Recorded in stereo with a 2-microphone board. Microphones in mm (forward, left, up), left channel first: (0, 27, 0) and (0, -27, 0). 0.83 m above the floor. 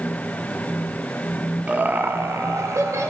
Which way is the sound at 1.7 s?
20° right (ahead or behind).